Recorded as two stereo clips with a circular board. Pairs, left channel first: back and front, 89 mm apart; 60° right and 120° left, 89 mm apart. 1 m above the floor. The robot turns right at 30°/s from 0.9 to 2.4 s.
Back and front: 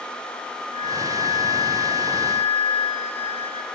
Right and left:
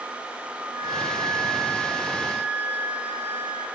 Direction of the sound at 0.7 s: 165° right.